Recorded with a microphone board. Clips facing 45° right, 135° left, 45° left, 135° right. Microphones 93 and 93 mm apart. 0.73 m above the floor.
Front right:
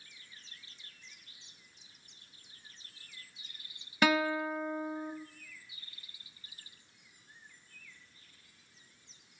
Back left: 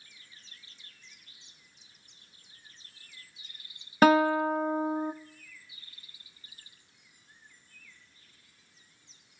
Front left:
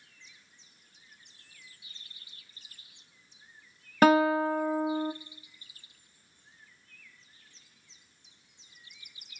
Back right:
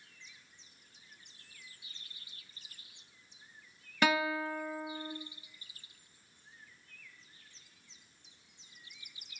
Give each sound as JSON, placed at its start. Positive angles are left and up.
{"t": 4.0, "sound": "a guitar", "azimuth_deg": 90, "distance_m": 0.6}